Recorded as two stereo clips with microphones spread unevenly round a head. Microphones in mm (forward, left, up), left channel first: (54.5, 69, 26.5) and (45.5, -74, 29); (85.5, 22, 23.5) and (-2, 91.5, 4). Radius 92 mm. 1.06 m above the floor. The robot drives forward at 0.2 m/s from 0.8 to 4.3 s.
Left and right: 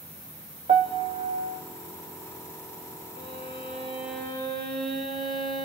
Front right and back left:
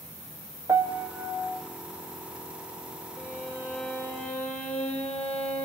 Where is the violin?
130° right, 2.5 m; by 5.7 s 135° right, 2.5 m.